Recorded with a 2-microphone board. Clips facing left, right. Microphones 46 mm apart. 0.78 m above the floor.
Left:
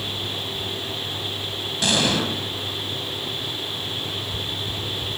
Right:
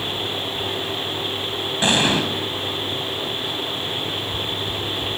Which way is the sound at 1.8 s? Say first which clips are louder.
Right 3 dB; 30° right (ahead or behind).